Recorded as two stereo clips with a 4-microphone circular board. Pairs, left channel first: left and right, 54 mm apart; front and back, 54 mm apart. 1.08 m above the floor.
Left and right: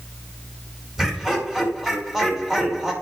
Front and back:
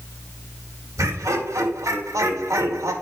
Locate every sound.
1.0 s laughter: 170° right, 3 m